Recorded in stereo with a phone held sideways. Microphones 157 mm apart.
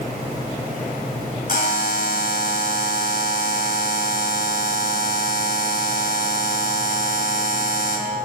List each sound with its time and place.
1.5 s a buzzer: 70° left (ahead or behind), 3 m